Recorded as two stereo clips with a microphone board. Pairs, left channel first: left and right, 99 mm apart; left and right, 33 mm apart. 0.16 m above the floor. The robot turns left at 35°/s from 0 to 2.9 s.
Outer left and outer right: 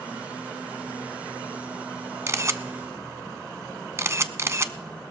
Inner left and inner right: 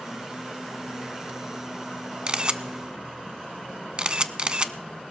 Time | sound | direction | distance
2.3 | a camera shutter | 30° right (ahead or behind) | 0.6 m